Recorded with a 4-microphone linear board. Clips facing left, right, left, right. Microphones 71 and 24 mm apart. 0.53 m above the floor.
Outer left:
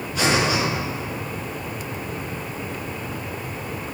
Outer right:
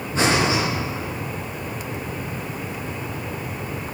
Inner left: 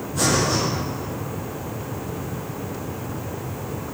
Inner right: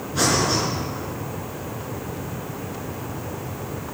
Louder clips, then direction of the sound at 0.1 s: Outer right 1 dB, even; 35° right (ahead or behind).